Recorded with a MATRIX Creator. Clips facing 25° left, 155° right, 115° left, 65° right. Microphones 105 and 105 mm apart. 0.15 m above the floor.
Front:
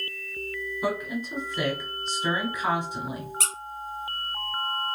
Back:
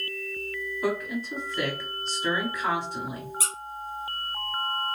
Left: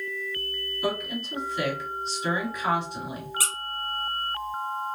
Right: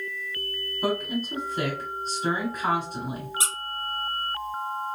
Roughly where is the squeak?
Ahead.